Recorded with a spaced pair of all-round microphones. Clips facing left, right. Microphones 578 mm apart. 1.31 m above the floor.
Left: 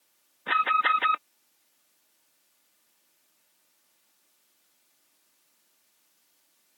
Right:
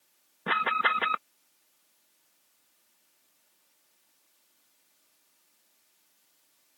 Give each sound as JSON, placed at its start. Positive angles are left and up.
{"t": 0.5, "sound": "an alarm", "side_deg": -65}